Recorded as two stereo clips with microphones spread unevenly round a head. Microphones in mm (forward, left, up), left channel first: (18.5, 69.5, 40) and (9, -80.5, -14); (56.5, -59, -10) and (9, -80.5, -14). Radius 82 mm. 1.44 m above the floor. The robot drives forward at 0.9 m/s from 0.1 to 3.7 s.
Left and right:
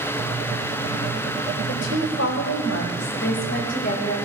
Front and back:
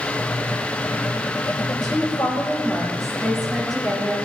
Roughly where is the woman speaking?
Left.